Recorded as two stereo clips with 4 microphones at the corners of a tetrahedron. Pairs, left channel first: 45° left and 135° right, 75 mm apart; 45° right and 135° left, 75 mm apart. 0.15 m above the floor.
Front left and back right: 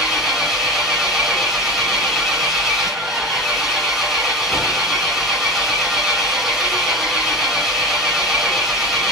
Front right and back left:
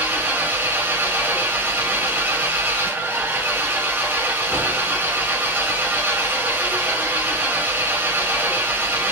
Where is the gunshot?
No gunshot in this recording.